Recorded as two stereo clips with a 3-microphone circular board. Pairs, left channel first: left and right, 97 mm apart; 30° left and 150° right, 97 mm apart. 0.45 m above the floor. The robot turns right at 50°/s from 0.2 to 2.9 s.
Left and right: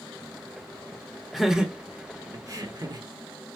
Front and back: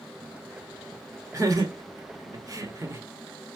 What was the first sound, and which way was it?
Laughter, straight behind.